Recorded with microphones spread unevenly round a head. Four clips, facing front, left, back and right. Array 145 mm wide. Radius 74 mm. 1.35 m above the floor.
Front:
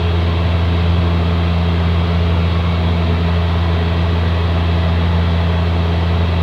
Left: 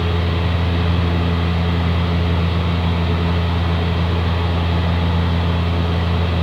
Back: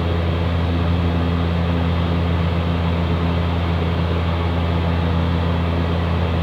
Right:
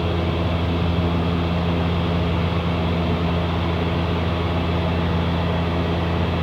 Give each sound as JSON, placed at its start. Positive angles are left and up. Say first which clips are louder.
{"t": 0.0, "sound": "a fan", "louder": "left 1 dB, front 2 dB", "azimuth_deg": -20, "distance_m": 3.5}